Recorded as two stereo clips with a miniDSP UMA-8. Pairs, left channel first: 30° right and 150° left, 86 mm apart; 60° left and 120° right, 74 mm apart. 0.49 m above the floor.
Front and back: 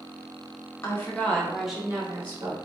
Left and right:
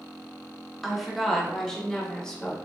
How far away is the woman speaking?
About 1.1 m.